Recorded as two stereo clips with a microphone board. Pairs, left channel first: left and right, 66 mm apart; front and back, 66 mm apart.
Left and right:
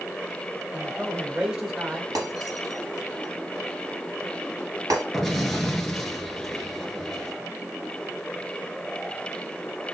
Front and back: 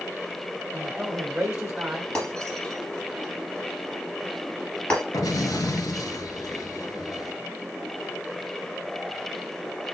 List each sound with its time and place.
0.7 s a man speaking: 130° right, 1.1 m
2.1 s breaking glass: 75° right, 2.5 m
5.1 s an explosion: 5° left, 1.1 m